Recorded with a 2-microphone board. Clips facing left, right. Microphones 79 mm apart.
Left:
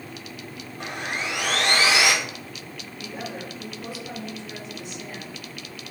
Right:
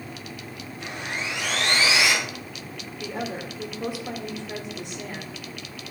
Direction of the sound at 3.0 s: 65° right (ahead or behind).